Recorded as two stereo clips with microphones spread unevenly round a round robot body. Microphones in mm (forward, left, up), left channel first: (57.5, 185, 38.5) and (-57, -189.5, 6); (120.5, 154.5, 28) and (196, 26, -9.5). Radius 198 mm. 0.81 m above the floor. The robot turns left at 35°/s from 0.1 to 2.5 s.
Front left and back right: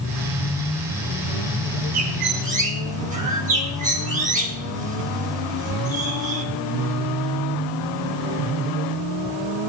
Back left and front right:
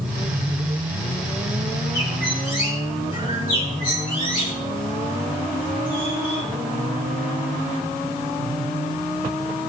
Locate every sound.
1.9 s a bird: 160° right, 3.5 m; by 6.5 s straight behind, 3.5 m